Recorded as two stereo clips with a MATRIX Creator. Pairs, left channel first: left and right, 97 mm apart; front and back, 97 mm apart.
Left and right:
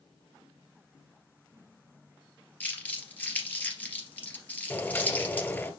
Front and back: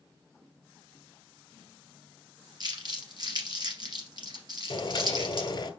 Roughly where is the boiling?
Ahead left.